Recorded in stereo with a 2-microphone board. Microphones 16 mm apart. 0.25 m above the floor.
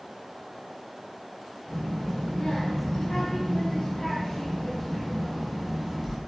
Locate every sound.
1.7 s a child speaking: 60° left (ahead or behind), 2 m; by 6.2 s 15° right (ahead or behind), 1.5 m